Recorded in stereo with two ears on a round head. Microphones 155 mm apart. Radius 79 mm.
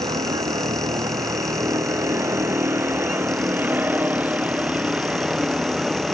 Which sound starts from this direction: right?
A vehicle, at 0.0 s.